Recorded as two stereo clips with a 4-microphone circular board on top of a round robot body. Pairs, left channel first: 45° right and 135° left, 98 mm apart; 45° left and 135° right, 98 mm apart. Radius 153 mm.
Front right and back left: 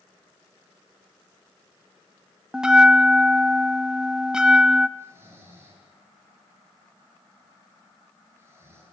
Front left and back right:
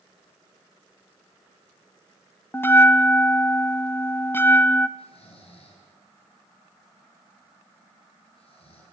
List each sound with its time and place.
2.5 s a bell: 65° left, 1.1 m
5.0 s snoring: 70° left, 8.5 m